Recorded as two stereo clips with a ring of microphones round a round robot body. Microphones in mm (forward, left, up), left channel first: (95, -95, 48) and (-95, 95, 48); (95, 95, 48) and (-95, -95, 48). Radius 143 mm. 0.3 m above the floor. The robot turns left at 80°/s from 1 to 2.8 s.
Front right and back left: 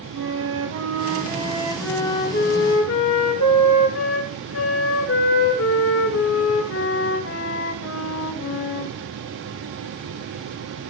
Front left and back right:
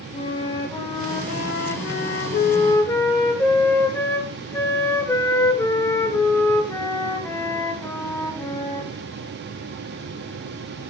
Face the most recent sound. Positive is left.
turn(degrees=-35)